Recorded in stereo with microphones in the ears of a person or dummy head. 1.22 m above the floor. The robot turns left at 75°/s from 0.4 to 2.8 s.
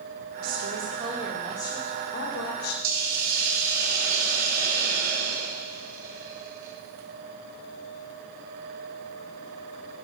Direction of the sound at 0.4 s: 110° right.